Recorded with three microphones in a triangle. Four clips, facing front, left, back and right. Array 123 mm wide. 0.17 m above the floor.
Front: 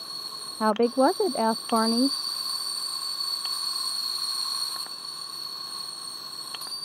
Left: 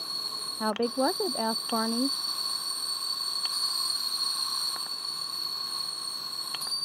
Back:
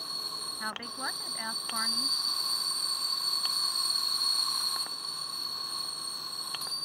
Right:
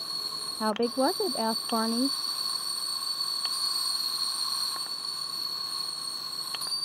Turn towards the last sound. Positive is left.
turn(degrees=0)